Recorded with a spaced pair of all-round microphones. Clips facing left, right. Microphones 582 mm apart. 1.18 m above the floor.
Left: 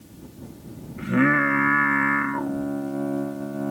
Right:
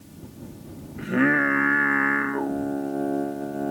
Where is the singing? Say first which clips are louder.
Left 1 dB; 30° left (ahead or behind).